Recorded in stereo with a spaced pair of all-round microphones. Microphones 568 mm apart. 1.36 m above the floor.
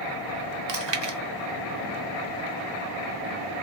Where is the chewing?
50° right (ahead or behind), 0.5 m.